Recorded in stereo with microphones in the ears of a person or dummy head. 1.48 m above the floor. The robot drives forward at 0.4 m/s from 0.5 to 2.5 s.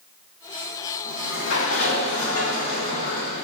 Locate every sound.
1.1 s a sliding door: 80° left, 1.4 m; by 3.5 s 70° left (ahead or behind), 1.5 m